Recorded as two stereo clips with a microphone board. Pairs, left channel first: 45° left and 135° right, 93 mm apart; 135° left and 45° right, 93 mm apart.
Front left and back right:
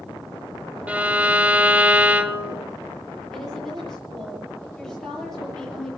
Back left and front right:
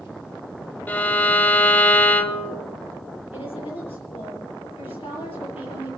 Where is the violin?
175° left, 0.8 m.